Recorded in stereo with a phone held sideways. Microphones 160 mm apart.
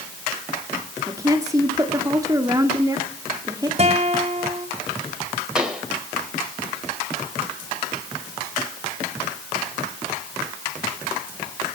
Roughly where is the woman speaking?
Right.